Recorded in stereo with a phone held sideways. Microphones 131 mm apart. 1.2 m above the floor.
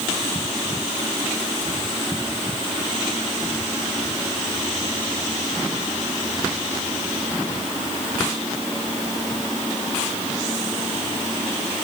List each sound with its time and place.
Only background noise.